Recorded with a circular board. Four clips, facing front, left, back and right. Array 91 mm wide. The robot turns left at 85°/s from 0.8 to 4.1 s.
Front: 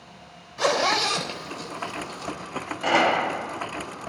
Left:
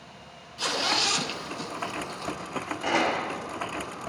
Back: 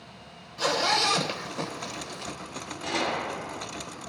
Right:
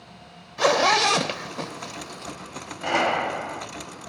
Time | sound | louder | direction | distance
0.6 | a zipper | right 10 dB, front 3 dB | 60° right | 1.0 m
2.8 | a gunshot | right 4 dB, front 9 dB | 5° left | 1.4 m